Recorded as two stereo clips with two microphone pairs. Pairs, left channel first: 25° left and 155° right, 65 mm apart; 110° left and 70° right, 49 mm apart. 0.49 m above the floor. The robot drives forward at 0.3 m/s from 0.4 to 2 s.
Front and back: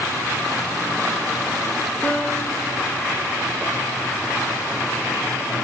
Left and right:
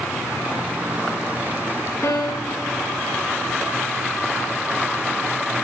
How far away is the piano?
About 3 m.